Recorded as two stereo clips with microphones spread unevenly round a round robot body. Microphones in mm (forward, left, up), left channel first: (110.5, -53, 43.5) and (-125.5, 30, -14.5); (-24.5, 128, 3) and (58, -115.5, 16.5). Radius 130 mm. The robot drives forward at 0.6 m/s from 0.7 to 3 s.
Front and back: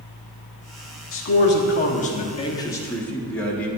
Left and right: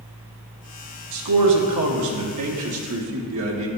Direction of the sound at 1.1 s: 65° right.